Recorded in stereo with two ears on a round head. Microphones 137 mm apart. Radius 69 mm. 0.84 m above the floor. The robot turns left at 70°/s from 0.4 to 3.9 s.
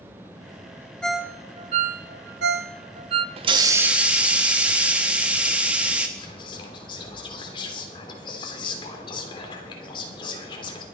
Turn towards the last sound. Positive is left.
turn(degrees=30)  # may be behind; listen again after turning